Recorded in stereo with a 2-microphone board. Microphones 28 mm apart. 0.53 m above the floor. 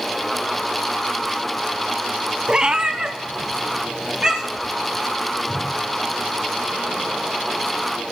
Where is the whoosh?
5° right (ahead or behind), 6.5 m.